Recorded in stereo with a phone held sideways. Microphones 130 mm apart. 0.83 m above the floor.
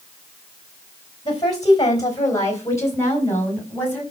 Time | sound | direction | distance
1.2 | a woman speaking | 35° left (ahead or behind) | 3.5 m